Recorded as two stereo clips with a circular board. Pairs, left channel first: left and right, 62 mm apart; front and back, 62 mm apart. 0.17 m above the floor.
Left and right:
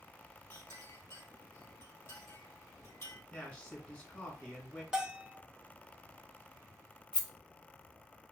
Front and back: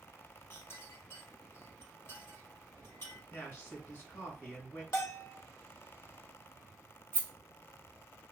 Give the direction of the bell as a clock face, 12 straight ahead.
12 o'clock.